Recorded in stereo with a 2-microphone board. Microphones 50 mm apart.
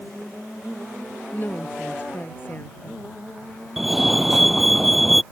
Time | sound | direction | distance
1.3 | a woman speaking | 40° left (ahead or behind) | ?
3.8 | a fire alarm | 5° right (ahead or behind) | ?